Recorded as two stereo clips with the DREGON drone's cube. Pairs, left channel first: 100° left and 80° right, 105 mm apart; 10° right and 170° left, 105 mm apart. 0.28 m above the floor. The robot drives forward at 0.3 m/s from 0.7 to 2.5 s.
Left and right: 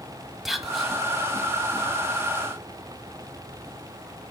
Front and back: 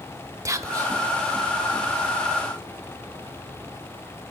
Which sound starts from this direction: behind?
Whispering, at 0.5 s.